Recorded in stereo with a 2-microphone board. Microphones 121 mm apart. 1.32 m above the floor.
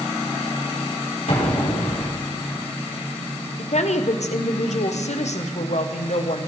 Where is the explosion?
85° left, 3 m.